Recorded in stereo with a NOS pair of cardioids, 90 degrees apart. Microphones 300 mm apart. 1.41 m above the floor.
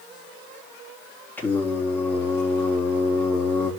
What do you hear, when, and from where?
1.4 s singing: 5° left, 3.5 m